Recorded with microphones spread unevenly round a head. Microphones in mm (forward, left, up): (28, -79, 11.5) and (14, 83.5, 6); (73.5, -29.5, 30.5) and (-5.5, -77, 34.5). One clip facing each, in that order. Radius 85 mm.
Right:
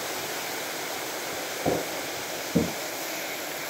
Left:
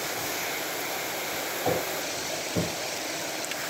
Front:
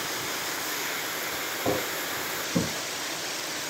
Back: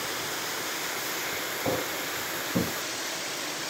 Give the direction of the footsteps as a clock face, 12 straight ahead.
2 o'clock.